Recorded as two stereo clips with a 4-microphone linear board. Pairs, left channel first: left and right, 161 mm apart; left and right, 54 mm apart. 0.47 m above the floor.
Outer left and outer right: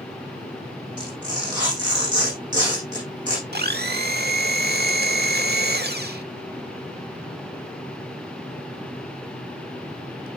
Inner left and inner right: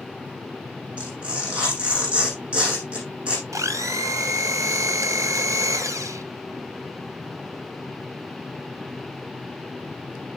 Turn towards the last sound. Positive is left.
turn(degrees=-90)